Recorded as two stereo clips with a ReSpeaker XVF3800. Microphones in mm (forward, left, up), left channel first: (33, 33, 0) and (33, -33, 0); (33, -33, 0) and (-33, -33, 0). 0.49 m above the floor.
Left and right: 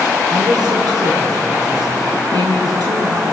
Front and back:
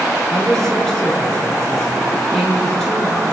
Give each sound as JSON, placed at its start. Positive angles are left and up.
{"t": 0.3, "sound": "a woman speaking", "azimuth_deg": -85, "distance_m": 6.5}